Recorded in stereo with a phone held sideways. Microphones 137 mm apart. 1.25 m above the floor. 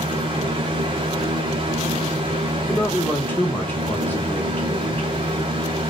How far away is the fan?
About 1.3 m.